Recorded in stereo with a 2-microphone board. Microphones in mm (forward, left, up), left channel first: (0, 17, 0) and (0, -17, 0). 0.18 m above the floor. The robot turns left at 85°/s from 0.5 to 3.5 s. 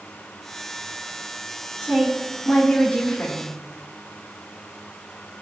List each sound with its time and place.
1.8 s a woman speaking: 125° right, 3 m; by 3.5 s 90° left, 3 m